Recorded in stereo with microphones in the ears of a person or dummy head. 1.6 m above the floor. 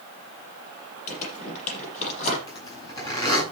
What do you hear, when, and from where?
1.1 s crumpling: 40° left (ahead or behind), 7.5 m
2.5 s a zipper: 20° left (ahead or behind), 9.5 m